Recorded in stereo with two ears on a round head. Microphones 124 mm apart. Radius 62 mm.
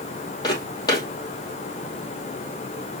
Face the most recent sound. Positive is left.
turn(degrees=30)  # may be behind; listen again after turning